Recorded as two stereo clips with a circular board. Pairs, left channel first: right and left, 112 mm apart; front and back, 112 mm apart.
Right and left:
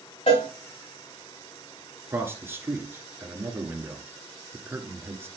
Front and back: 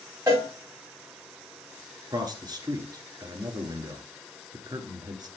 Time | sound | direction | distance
0.3 | a cowbell | 115° right | 5 m
2.1 | a man speaking | 150° left | 1.6 m